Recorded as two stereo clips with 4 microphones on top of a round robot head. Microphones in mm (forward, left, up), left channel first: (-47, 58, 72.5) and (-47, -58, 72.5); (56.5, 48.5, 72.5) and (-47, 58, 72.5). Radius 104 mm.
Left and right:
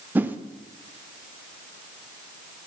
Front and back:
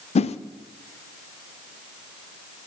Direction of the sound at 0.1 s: 15° right.